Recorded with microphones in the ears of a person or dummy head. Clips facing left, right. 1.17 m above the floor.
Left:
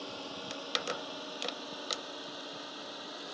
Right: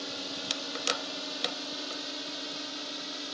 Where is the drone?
25° right (ahead or behind); by 3.3 s 35° right (ahead or behind).